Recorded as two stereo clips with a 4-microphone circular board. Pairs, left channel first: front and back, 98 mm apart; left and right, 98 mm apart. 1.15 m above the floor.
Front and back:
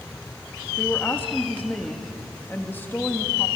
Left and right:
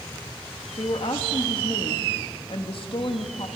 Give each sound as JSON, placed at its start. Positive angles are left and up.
{"t": 0.8, "sound": "a woman speaking", "azimuth_deg": 70, "distance_m": 1.9}